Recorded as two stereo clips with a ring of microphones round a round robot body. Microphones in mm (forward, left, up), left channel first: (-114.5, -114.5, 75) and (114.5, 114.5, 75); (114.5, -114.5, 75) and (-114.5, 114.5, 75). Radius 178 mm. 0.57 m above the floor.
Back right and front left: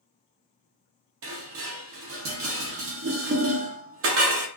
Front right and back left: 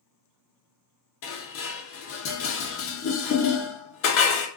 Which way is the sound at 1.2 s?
Straight ahead.